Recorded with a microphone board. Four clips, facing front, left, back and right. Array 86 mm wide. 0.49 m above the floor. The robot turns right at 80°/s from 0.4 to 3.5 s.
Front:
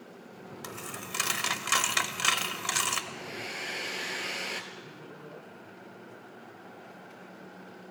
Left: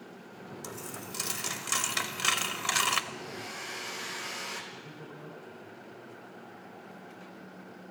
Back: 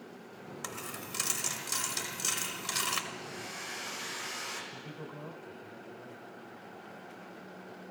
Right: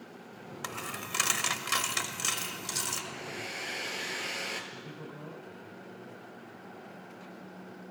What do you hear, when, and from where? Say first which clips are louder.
0.6 s a dropped coin: right 5 dB, front 2 dB; 105° right, 0.6 m; by 3.0 s 85° left, 0.6 m
3.1 s a hair dryer: even, front 3 dB; 65° right, 1.6 m; by 4.6 s 30° right, 1.6 m
4.7 s a man speaking: right 1 dB, back 1 dB; 160° right, 5 m